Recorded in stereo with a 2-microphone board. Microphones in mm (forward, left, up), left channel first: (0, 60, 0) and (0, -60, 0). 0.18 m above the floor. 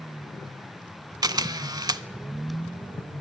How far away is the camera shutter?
About 0.5 m.